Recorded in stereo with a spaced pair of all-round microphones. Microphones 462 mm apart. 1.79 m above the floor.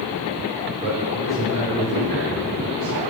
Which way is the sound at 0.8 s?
25° left (ahead or behind).